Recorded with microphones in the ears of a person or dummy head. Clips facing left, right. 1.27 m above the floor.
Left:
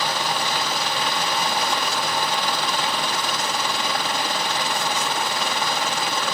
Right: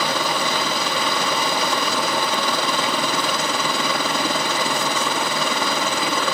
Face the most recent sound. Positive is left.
turn(degrees=-60)  # may be behind; listen again after turning